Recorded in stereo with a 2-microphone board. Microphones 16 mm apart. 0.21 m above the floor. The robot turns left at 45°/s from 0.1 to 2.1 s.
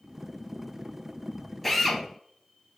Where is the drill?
10° left (ahead or behind), 0.6 m; by 2.0 s centre (ahead or behind), 0.6 m.